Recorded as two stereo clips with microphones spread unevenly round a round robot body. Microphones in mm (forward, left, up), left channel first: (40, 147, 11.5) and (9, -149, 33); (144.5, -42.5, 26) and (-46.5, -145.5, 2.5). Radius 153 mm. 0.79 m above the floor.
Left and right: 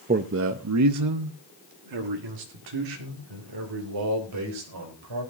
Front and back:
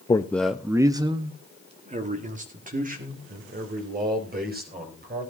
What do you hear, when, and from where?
0.1 s a man speaking: 40° right, 0.7 m; by 5.3 s 110° right, 4 m